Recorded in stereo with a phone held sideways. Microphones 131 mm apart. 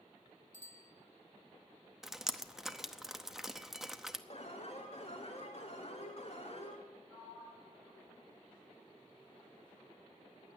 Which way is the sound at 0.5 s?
70° right (ahead or behind).